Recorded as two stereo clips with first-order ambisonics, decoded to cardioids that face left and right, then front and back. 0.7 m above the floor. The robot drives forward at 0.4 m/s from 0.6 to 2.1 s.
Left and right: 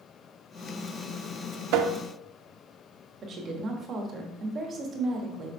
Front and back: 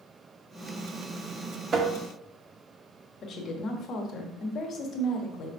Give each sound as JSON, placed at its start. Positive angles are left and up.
{"t": 1.7, "sound": "tapping", "azimuth_deg": -120, "distance_m": 0.7}
{"t": 3.2, "sound": "a woman speaking", "azimuth_deg": -45, "distance_m": 1.1}